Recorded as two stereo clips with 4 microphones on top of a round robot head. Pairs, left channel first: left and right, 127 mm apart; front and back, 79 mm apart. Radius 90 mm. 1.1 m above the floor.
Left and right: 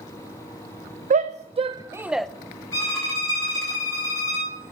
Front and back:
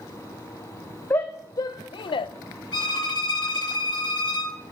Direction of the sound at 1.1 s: 65° right.